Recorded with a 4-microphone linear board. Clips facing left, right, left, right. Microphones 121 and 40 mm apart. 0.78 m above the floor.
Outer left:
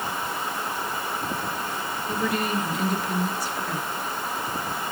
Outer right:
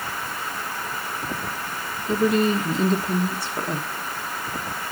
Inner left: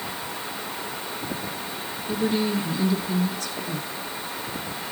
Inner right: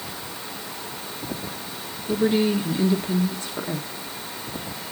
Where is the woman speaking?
30° right (ahead or behind), 1.2 m.